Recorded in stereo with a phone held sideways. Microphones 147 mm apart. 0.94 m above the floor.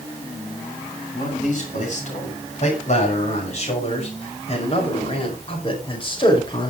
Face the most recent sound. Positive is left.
turn(degrees=35)  # may be behind; listen again after turning